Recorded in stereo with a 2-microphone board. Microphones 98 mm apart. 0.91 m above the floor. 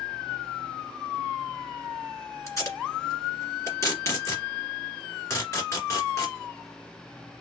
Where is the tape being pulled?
30° left (ahead or behind), 1.6 m.